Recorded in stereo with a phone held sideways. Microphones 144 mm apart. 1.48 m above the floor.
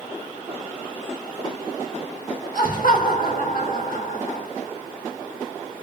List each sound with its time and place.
2.5 s laughter: 70° left (ahead or behind), 1.6 m